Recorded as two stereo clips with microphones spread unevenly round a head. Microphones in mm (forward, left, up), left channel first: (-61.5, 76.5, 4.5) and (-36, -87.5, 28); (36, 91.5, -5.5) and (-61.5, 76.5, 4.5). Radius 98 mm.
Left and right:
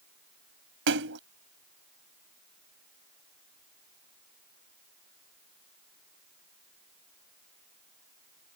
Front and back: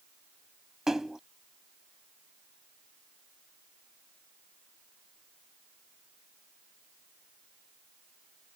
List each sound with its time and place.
0.9 s a splash: 85° right